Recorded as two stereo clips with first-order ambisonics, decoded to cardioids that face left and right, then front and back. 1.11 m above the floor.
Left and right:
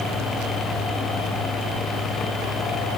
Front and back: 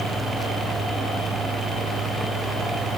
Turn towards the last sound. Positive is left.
No sound to turn to.